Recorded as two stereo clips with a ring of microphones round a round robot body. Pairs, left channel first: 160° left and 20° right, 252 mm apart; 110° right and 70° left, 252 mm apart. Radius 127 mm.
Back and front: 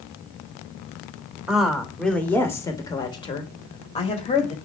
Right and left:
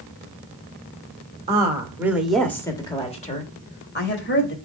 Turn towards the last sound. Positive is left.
turn(degrees=-145)